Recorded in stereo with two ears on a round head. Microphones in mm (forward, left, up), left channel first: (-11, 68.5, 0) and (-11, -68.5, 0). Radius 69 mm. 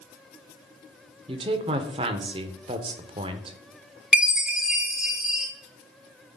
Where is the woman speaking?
35° right (ahead or behind), 1.0 m.